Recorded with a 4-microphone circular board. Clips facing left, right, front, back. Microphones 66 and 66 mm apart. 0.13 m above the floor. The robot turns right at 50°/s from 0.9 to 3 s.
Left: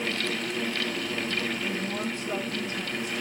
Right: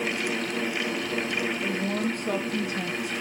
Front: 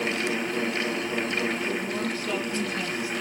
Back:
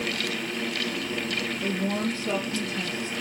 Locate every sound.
1.6 s a woman speaking: 145° right, 3.5 m; by 3.1 s 75° right, 3.5 m